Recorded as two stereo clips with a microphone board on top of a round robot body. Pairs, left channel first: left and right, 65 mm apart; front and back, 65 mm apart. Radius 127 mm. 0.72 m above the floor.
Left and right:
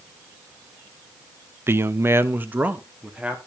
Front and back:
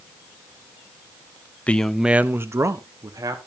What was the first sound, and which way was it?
A man speaking, 60° right.